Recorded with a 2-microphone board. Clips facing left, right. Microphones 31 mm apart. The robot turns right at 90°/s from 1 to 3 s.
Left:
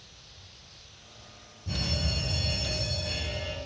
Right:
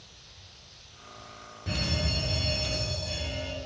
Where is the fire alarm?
75° right, 6.5 m; by 3.6 s 45° left, 6.5 m.